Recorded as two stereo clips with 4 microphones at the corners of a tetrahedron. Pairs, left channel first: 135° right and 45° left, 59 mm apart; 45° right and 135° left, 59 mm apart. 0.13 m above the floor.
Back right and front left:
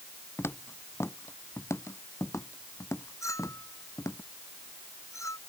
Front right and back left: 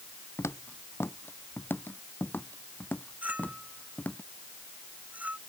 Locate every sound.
0.4 s footsteps: 85° right; by 4.2 s 110° right
3.2 s a clink: 160° right